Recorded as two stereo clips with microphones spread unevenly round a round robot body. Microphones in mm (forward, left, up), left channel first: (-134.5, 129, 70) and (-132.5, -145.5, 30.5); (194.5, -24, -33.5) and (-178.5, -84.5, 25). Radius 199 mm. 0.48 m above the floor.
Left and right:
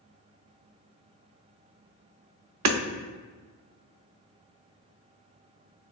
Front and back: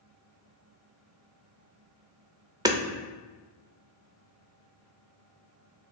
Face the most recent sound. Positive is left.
turn(degrees=-85)